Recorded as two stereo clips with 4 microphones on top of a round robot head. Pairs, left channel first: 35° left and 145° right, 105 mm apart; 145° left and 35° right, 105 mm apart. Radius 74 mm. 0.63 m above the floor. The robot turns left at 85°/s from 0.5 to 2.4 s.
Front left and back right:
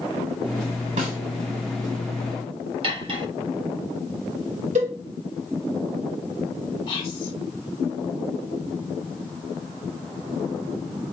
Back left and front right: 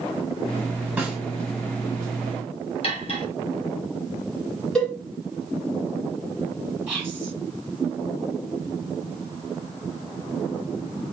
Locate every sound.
1.0 s a snare drum: 110° right, 0.8 m; by 1.2 s 130° right, 0.8 m
2.8 s cutlery clinking: 175° left, 1.2 m
4.8 s a cowbell: 135° right, 1.2 m
6.9 s whispering: 35° left, 0.8 m